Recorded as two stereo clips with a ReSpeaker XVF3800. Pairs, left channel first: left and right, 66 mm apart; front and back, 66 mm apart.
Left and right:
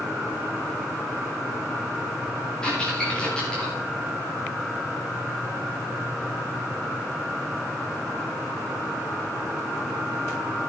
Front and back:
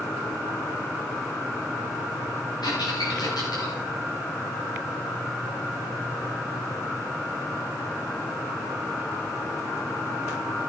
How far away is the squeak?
About 8.5 m.